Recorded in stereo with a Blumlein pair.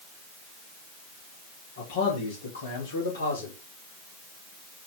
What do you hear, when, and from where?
1.8 s a man speaking: 60° left, 3.5 m; by 3.5 s 75° left, 4 m